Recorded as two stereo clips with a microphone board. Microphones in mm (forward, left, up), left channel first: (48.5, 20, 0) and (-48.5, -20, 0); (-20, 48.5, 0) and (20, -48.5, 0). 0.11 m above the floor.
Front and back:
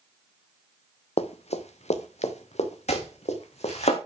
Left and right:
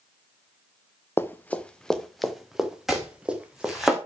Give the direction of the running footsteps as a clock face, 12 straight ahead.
11 o'clock.